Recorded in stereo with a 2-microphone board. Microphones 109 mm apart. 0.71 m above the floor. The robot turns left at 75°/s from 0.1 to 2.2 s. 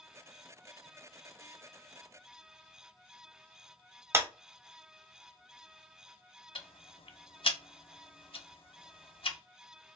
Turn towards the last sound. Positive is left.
turn(degrees=60)  # may be behind; listen again after turning